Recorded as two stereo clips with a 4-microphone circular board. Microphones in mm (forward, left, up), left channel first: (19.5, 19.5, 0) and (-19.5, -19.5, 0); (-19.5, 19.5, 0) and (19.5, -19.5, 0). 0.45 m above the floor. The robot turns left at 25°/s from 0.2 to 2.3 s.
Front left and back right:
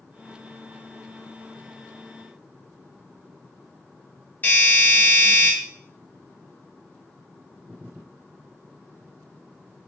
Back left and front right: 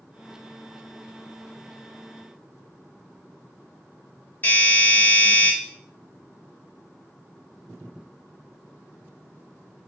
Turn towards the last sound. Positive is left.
turn(degrees=90)